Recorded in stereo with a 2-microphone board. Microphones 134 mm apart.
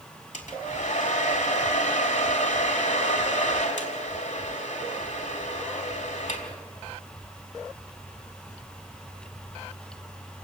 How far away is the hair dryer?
About 4 m.